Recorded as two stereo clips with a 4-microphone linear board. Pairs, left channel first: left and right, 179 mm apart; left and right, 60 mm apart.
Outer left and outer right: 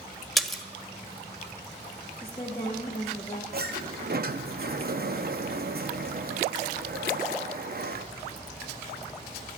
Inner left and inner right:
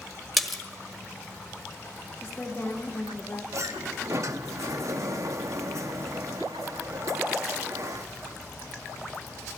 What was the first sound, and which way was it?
A splash, centre (ahead or behind).